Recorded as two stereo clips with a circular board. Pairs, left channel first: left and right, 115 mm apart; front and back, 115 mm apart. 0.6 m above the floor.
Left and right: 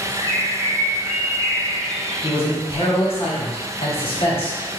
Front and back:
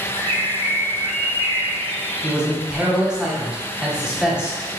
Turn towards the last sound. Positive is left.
turn(degrees=100)